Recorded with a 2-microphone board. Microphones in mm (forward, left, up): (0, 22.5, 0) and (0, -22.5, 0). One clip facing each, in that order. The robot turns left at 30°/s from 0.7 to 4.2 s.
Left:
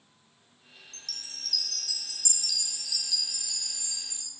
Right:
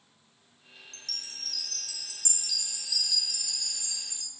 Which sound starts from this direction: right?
A chime, at 0.9 s.